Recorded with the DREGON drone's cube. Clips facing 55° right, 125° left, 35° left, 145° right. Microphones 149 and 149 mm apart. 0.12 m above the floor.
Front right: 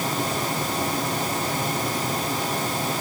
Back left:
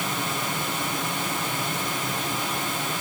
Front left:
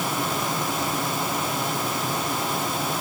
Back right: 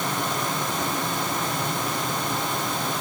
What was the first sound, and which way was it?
Only background noise.